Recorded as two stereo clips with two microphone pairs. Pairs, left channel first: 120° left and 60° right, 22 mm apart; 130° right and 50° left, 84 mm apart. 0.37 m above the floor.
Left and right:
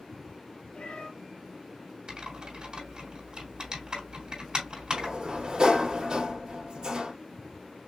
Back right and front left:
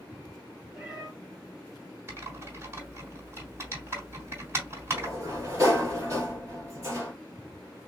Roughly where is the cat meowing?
Behind left.